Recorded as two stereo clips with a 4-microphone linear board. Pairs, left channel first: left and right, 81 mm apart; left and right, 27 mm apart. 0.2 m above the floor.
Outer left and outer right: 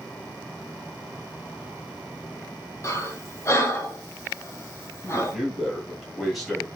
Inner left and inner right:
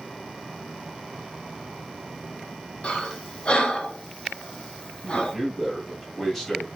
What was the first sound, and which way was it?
Breathing, 35° left (ahead or behind).